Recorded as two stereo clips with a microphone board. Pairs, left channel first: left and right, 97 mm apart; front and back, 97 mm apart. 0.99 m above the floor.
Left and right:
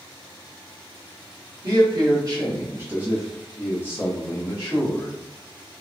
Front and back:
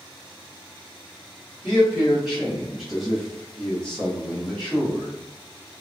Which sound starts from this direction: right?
A man speaking, at 1.6 s.